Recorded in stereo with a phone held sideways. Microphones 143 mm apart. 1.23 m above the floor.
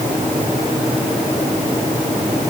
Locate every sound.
Only background noise.